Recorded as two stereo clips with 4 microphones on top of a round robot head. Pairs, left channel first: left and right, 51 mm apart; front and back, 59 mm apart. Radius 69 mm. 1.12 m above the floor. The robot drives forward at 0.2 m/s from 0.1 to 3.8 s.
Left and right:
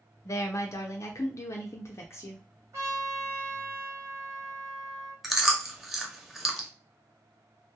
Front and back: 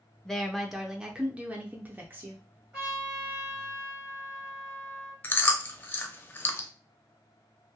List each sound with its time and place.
0.2 s a woman speaking: 80° left, 0.5 m; by 2.4 s 125° left, 0.6 m
2.7 s a trumpet: 110° right, 1.2 m; by 5.1 s 120° right, 1.3 m
5.2 s chewing: 5° right, 0.7 m